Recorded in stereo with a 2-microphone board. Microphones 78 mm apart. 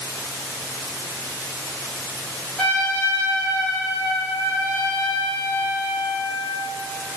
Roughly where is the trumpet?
Centre.